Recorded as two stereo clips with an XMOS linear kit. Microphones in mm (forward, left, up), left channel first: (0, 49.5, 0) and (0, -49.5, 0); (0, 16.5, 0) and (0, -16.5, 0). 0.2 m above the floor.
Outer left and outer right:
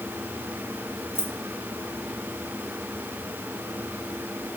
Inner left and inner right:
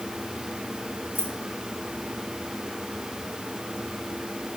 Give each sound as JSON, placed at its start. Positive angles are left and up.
{"t": 1.1, "sound": "keys jangling", "side_deg": -65, "distance_m": 2.0}